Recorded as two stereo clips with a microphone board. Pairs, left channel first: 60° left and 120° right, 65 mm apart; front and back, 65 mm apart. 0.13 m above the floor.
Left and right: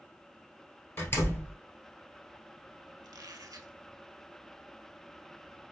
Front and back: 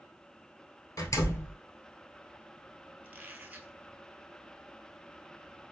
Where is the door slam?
20° left, 1.5 m.